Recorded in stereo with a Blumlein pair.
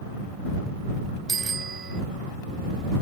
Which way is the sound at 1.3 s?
20° right.